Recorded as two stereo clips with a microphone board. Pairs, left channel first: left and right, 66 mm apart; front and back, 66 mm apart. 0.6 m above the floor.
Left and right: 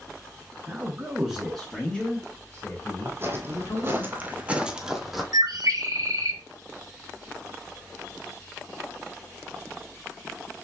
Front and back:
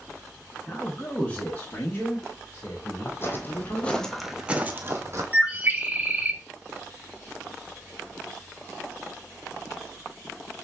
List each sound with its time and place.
0.7 s a man speaking: 75° right, 1.2 m; by 4.0 s 55° left, 2.5 m
3.0 s footsteps: 40° right, 1.0 m; by 5.2 s straight behind, 0.8 m
5.3 s a bird: 115° right, 0.8 m